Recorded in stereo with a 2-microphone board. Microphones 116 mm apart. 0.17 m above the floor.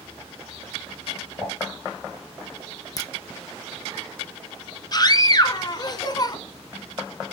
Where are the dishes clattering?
25° right (ahead or behind), 3 m.